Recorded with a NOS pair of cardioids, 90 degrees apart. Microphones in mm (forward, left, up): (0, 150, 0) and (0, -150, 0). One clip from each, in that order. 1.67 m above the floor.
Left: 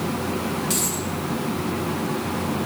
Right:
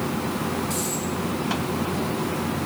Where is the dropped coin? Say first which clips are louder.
Left 2 dB; 70° left, 6 m.